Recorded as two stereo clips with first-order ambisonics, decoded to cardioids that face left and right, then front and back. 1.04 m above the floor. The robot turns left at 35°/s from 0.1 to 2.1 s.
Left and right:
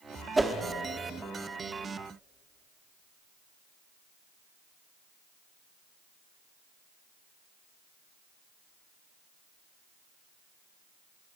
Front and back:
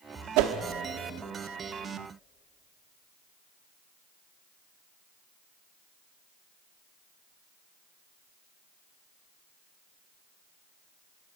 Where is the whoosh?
170° right, 1.1 m; by 0.5 s straight behind, 1.1 m.